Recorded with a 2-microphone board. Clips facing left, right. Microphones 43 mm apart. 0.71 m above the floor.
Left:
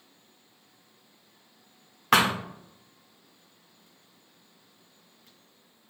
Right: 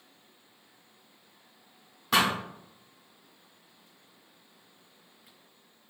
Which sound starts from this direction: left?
A thud, at 2.1 s.